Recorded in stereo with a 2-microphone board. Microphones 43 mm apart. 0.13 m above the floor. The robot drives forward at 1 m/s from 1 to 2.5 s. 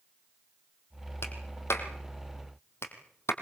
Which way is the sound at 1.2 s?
70° left (ahead or behind).